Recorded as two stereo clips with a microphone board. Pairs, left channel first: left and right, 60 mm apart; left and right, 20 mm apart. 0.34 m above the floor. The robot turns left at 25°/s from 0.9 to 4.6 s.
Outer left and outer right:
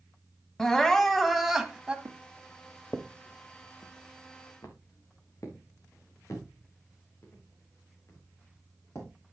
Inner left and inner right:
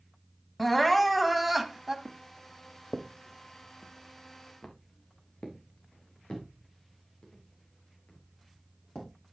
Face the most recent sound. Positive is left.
turn(degrees=50)  # may be behind; listen again after turning